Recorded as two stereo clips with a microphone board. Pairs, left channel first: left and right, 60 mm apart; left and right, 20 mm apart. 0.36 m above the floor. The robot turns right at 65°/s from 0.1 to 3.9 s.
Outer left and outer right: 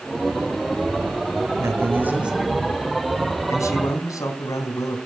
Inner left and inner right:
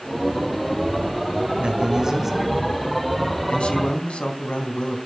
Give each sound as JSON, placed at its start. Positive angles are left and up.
{"t": 1.6, "sound": "a man speaking", "azimuth_deg": -60, "distance_m": 3.5}